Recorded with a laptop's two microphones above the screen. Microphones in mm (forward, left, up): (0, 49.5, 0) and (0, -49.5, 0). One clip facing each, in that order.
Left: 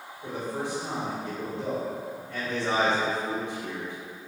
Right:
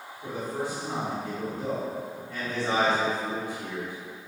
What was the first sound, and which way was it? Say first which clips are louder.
A man speaking: even; 15° right (ahead or behind).